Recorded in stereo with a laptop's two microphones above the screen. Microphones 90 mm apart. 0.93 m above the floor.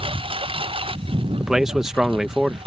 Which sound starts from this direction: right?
A lawn mower, at 0.0 s.